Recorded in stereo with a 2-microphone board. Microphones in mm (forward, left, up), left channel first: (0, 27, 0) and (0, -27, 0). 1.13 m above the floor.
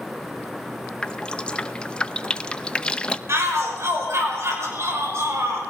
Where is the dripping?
20° left (ahead or behind), 0.7 m.